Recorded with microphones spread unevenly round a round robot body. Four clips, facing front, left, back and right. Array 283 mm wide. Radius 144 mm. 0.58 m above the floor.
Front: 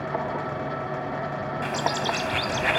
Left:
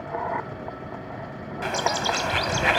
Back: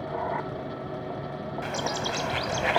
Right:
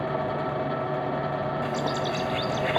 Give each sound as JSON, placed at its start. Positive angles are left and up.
{"t": 1.6, "sound": "a bird", "azimuth_deg": 75}